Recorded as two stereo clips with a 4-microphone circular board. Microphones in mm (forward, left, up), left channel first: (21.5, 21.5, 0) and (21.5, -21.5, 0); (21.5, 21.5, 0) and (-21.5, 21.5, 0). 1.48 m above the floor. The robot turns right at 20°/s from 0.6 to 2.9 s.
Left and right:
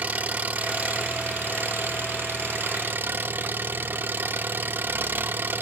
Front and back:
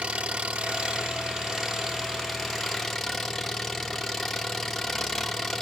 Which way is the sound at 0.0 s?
130° right.